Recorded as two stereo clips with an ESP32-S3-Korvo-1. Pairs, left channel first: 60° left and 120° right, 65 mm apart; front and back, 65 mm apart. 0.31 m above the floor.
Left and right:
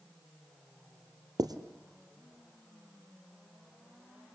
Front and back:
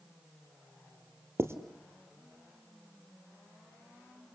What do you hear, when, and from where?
1.4 s writing: 130° right, 1.8 m